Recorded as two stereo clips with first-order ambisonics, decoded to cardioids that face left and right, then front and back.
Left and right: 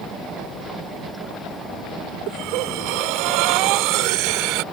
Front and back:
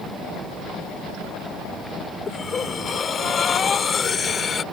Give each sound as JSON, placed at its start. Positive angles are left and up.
{"t": 2.3, "sound": "breathing", "azimuth_deg": -65}